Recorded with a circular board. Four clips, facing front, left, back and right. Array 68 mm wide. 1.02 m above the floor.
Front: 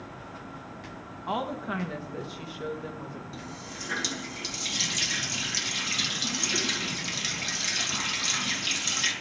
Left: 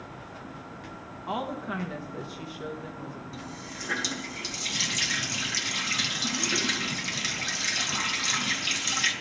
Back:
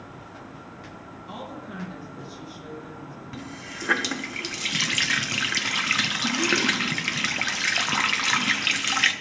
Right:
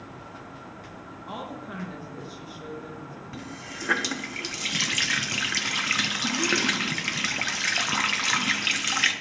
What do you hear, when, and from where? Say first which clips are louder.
1.3 s a woman speaking: left 5 dB, front 8 dB; 25° left, 1.4 m
3.3 s a running tap: right 2 dB, back 3 dB; 155° right, 0.8 m